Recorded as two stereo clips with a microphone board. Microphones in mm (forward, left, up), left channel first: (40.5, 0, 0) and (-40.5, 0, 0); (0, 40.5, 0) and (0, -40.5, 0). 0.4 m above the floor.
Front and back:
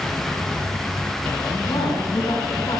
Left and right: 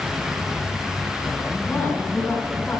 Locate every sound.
1.6 s a woman speaking: 25° left, 4.5 m